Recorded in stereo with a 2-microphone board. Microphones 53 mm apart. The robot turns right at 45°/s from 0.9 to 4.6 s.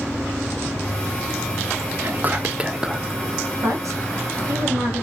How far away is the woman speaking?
About 1.1 m.